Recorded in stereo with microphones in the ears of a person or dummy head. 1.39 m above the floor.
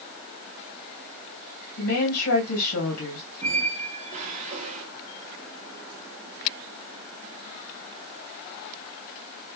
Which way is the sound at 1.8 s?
80° left.